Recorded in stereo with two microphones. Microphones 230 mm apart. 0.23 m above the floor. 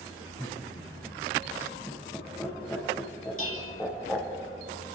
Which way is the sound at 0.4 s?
10° left (ahead or behind).